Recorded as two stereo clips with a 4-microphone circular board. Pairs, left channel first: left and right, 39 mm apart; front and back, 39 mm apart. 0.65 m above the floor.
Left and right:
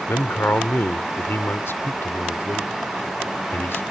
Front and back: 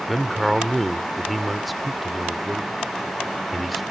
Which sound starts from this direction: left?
A man speaking, at 0.1 s.